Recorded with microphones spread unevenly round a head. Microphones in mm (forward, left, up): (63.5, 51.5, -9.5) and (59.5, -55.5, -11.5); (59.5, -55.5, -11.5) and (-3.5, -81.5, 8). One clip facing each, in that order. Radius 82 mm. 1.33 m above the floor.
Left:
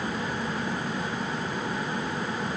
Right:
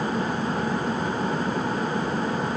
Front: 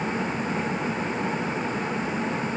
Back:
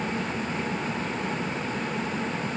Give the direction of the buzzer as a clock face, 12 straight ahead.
No buzzer in this recording.